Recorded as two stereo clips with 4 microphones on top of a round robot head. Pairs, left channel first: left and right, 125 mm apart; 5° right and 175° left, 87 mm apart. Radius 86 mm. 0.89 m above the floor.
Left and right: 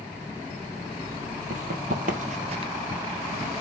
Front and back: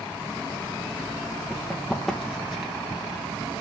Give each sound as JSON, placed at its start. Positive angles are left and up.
{"t": 1.5, "sound": "running footsteps", "azimuth_deg": -90, "distance_m": 2.0}